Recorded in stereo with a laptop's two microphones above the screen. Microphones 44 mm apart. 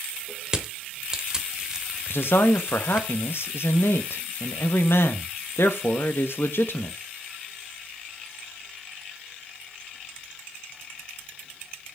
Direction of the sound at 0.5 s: 15° right (ahead or behind).